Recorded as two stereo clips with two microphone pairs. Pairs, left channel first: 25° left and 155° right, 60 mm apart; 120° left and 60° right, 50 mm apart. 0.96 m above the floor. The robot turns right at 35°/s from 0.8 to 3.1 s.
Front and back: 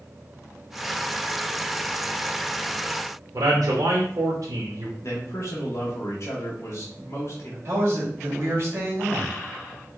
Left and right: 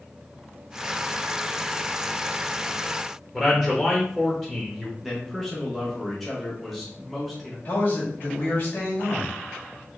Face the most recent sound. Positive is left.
turn(degrees=165)